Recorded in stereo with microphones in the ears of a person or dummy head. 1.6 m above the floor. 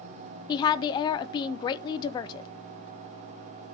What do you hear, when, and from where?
0.5 s a woman speaking: 30° left (ahead or behind), 0.8 m